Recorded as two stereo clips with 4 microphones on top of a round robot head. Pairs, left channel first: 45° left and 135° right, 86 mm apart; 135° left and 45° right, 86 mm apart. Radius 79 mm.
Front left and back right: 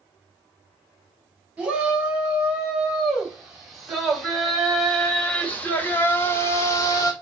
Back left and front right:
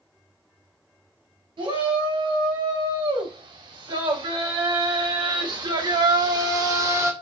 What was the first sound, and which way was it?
A shout, 60° right.